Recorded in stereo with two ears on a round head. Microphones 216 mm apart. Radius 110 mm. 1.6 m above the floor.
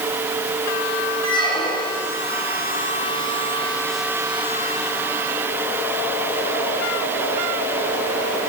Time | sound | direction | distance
1.2 | a squeak | 20° left (ahead or behind) | 4 m